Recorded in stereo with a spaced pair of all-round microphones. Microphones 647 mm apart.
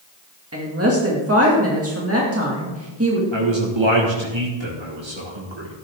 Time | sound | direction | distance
0.5 | a woman speaking | 20° right (ahead or behind) | 2 m
3.3 | a man speaking | 45° right (ahead or behind) | 1.8 m